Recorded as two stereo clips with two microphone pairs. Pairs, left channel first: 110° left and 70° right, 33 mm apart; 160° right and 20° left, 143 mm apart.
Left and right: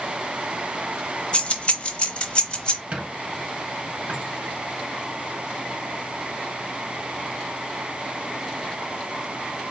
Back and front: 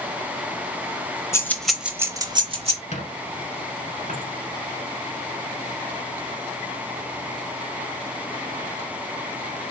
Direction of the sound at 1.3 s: 140° left.